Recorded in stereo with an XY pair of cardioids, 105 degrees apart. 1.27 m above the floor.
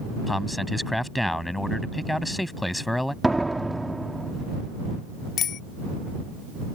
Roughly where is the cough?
No cough in this recording.